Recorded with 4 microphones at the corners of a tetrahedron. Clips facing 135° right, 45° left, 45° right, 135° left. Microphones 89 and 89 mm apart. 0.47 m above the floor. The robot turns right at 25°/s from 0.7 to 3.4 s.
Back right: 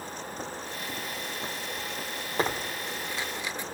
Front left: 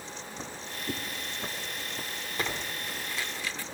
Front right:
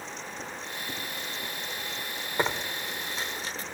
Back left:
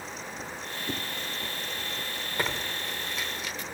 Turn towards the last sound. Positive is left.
turn(degrees=-75)